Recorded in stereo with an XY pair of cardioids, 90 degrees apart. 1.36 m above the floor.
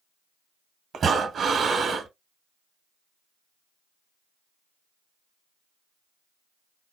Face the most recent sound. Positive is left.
turn(degrees=-60)